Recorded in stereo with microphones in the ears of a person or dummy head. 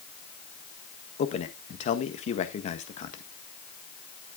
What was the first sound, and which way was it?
A man speaking, 35° left (ahead or behind).